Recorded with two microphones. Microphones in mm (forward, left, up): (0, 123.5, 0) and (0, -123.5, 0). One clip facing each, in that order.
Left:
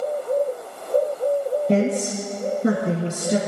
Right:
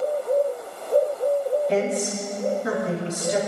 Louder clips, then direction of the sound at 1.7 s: Left 3 dB; 55° left (ahead or behind).